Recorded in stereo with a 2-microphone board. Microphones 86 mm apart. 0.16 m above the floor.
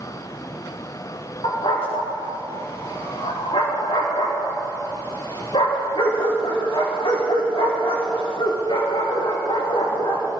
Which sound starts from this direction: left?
A dog barking, at 1.4 s.